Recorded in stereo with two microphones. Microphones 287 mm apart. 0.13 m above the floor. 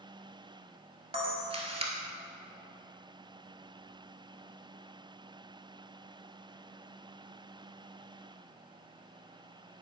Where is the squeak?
No squeak in this recording.